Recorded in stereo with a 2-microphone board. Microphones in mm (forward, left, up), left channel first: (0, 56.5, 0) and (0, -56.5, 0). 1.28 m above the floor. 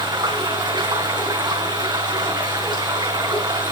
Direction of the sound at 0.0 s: 40° right (ahead or behind).